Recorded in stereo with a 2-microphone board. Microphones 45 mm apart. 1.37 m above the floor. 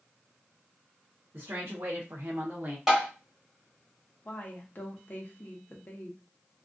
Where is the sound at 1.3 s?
60° right (ahead or behind), 0.8 m; by 2.8 s 35° right (ahead or behind), 0.6 m.